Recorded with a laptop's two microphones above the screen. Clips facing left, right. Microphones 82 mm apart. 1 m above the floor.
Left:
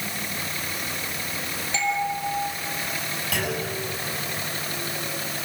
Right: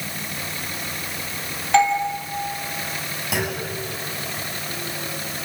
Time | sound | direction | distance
1.7 | a doorbell | 70° right (ahead or behind) | 3 m
3.3 | a clunk | 15° right (ahead or behind) | 6.5 m